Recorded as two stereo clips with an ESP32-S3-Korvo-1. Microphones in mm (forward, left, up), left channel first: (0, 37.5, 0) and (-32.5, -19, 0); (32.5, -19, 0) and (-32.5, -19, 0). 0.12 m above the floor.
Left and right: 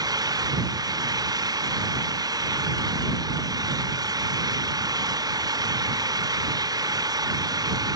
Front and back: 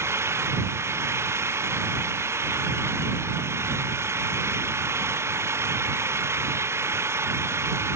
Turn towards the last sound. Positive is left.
turn(degrees=-130)